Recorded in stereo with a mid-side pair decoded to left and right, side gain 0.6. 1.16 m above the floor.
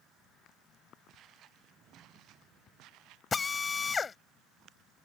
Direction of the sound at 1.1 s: 55° right.